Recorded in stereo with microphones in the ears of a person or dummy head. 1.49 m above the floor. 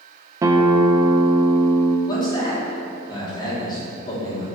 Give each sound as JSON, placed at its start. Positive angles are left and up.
{"t": 0.4, "sound": "a guitar", "side_deg": -20, "distance_m": 0.7}
{"t": 2.1, "sound": "a man speaking", "side_deg": 25, "distance_m": 3.5}